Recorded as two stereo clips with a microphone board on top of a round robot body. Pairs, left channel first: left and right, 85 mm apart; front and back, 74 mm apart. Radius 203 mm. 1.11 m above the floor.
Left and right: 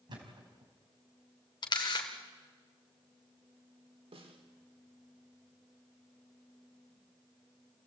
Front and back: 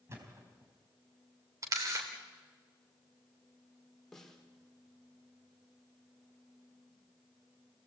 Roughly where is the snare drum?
Right.